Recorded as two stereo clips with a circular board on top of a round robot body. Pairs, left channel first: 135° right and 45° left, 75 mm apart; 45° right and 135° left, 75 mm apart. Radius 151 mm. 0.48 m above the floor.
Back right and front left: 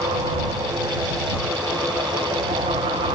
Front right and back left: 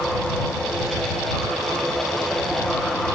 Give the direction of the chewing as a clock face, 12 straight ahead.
No chewing in this recording.